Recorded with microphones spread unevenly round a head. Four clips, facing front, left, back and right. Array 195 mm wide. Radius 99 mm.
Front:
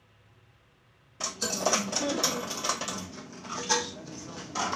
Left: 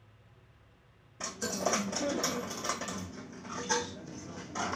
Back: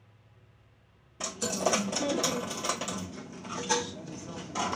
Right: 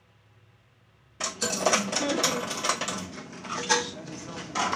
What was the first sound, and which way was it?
A dropped coin, 100° right.